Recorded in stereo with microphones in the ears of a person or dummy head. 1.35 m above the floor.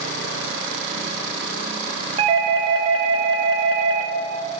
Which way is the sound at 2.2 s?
25° right (ahead or behind).